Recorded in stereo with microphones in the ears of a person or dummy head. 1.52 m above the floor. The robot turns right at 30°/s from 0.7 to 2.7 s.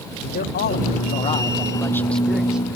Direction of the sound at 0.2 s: 130° left.